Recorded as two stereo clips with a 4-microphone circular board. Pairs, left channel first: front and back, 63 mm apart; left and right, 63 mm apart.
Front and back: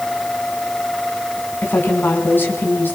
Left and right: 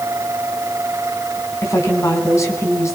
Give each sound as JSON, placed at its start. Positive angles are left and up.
{"t": 1.6, "sound": "a woman speaking", "azimuth_deg": 55, "distance_m": 4.0}